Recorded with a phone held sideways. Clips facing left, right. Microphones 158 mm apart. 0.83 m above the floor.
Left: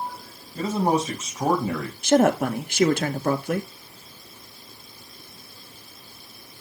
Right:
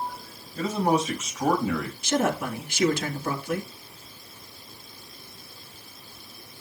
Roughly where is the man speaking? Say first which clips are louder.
Left 1 dB; left.